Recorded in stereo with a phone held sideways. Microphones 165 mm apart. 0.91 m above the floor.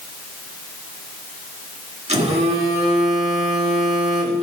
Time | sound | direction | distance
2.1 | a phone buzzing | 45° right (ahead or behind) | 1.6 m